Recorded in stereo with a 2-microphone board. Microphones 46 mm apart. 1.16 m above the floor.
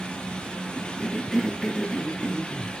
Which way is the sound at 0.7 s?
10° left (ahead or behind).